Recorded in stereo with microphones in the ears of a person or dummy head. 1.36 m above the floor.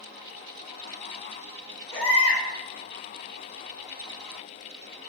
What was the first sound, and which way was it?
A baby crying, 25° left (ahead or behind).